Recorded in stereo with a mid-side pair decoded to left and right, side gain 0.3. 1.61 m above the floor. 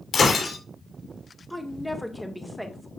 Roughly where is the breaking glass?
Left.